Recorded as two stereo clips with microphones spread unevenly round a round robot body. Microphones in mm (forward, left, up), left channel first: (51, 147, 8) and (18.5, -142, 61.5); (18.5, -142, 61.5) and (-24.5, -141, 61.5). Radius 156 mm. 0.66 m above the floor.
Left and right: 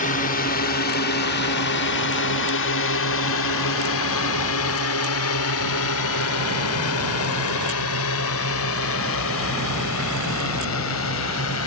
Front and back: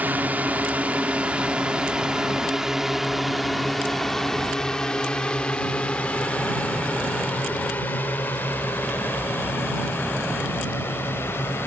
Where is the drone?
130° left; by 11.7 s 45° left.